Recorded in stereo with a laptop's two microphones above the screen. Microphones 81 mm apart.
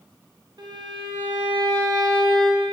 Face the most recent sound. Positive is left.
turn(degrees=-55)  # may be behind; listen again after turning